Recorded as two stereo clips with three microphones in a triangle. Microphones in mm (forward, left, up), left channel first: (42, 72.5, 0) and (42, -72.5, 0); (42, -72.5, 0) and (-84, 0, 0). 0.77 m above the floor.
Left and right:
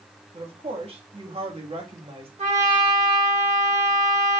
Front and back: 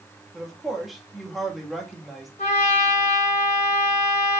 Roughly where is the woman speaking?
Behind right.